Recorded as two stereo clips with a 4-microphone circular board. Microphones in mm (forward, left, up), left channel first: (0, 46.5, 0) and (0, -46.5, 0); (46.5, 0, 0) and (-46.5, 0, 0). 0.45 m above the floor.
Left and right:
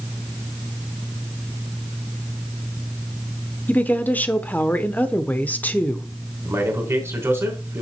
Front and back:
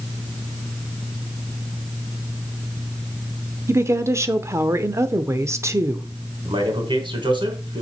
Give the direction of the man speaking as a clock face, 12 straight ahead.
5 o'clock.